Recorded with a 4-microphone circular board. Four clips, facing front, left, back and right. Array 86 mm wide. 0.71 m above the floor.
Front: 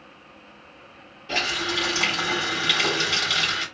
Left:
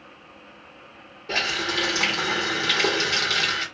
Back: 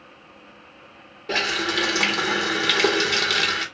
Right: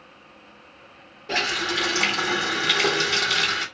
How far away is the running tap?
About 1.4 m.